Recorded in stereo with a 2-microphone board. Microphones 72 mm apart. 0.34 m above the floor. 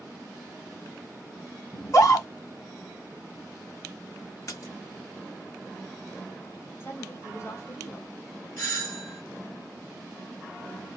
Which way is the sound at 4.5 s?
45° left (ahead or behind).